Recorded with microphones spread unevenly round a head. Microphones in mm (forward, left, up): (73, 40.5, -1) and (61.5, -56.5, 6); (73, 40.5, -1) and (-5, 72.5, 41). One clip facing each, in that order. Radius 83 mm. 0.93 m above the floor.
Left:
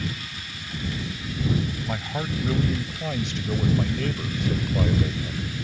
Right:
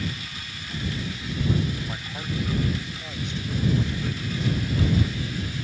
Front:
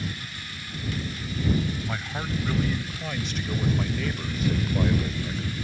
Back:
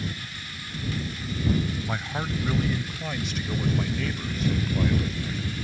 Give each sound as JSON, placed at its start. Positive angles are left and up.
{"t": 1.9, "sound": "a man speaking", "azimuth_deg": 85}